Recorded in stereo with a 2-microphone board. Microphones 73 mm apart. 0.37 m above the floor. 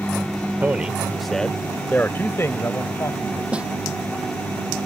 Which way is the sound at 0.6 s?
25° right (ahead or behind).